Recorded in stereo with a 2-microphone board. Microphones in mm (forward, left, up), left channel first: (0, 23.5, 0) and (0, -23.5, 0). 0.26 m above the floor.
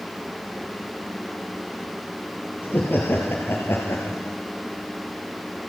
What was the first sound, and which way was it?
Laughter, 45° left (ahead or behind).